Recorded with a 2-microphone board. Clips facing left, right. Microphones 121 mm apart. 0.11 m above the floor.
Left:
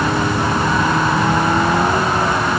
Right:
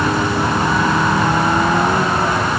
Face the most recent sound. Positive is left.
No sound to turn to.